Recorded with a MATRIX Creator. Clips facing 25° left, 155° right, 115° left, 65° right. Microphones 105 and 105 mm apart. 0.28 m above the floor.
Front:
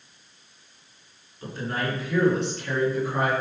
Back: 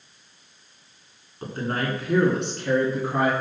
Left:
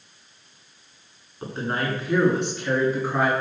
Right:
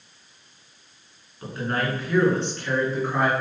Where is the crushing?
No crushing in this recording.